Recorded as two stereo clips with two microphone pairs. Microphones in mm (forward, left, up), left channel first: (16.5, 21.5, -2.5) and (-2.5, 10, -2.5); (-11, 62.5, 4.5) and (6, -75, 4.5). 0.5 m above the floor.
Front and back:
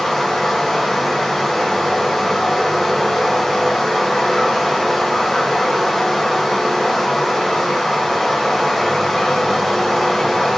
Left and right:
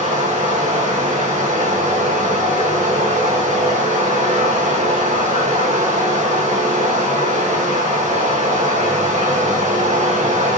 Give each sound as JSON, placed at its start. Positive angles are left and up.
{"t": 0.0, "sound": "running water", "azimuth_deg": -60, "distance_m": 2.5}